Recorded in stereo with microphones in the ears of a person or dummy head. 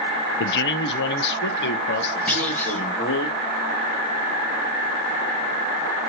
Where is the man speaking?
55° left (ahead or behind), 0.5 m; by 3.3 s 60° left (ahead or behind), 2 m.